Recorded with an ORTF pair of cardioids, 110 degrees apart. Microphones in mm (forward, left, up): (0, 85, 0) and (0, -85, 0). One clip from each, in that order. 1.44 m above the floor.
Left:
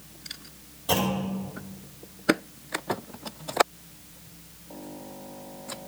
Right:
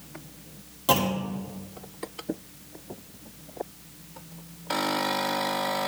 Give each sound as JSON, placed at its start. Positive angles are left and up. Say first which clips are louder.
{"t": 0.9, "sound": "a clunk", "louder": "right 2 dB", "azimuth_deg": -65, "distance_m": 2.0}